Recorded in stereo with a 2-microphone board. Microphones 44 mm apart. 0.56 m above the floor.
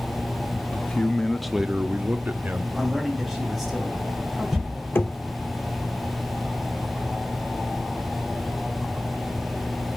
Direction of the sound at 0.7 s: 30° left (ahead or behind).